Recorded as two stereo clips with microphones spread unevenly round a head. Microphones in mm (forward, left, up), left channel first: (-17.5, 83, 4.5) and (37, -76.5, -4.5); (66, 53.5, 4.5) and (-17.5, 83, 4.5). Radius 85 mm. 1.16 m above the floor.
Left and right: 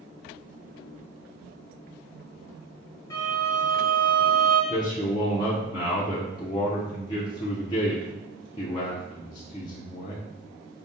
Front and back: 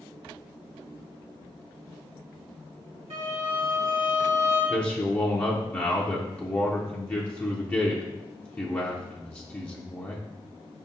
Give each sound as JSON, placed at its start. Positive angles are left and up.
{"t": 3.1, "sound": "a violin", "azimuth_deg": -175, "distance_m": 1.6}
{"t": 4.7, "sound": "a man speaking", "azimuth_deg": 45, "distance_m": 0.7}